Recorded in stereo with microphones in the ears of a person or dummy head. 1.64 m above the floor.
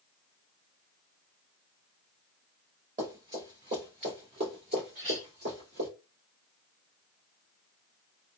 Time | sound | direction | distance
3.0 | running footsteps | 30° right (ahead or behind) | 1.9 m
5.0 | a clink | 55° right (ahead or behind) | 1.7 m